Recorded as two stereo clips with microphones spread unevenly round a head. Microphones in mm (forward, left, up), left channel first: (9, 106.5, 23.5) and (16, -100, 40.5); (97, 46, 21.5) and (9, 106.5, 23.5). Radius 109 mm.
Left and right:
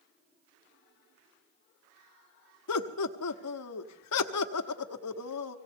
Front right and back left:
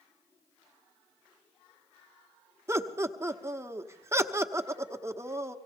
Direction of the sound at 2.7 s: 80° left.